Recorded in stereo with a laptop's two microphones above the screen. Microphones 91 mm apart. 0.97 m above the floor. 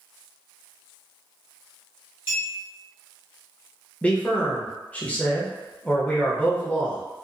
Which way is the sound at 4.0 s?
15° left (ahead or behind).